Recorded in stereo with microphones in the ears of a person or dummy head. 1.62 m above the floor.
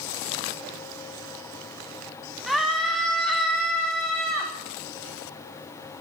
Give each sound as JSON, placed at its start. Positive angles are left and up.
{"t": 2.5, "sound": "a scream", "side_deg": 5, "distance_m": 2.5}